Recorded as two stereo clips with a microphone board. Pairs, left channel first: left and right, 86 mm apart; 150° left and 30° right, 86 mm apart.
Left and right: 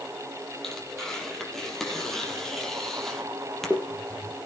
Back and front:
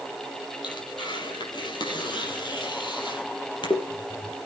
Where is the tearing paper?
175° left, 4.5 m.